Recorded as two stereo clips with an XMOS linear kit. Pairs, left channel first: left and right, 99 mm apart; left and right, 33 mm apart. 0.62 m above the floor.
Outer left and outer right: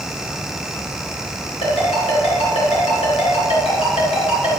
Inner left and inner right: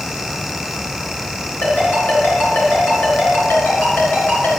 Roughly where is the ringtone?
Left.